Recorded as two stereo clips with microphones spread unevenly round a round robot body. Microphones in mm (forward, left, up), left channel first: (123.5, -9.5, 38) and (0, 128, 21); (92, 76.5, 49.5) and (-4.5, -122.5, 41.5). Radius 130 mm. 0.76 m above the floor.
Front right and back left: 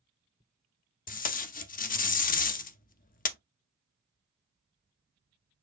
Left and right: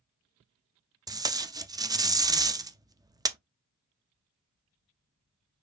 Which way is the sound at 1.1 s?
55° right.